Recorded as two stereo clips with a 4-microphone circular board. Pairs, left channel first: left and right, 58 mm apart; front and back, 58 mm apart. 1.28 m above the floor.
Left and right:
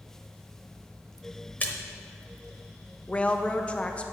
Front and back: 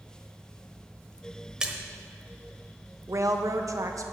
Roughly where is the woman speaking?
Behind left.